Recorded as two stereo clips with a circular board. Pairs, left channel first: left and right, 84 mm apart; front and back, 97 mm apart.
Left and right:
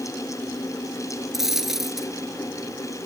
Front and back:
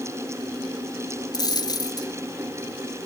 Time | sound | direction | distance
1.3 | a dropped coin | 5° right | 1.1 m